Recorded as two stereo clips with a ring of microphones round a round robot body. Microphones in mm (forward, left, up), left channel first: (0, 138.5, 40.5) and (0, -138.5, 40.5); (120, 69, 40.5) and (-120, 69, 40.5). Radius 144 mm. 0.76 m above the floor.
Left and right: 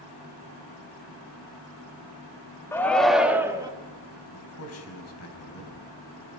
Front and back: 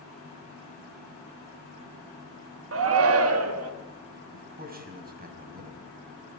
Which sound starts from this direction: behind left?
A man speaking, at 4.3 s.